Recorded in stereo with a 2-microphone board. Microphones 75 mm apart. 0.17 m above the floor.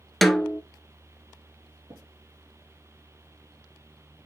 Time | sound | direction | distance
0.2 | a snare drum | centre (ahead or behind) | 0.7 m
1.9 | tapping | 60° right (ahead or behind) | 3 m